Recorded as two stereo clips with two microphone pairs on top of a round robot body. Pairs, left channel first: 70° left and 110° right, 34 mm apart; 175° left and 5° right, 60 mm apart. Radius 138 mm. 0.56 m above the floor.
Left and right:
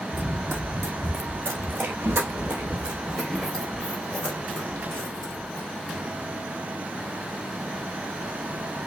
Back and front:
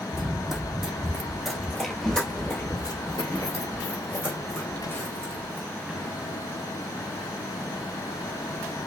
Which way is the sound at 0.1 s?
90° right.